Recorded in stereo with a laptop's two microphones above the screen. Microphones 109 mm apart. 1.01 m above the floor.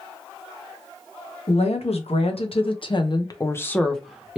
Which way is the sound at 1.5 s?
70° left (ahead or behind).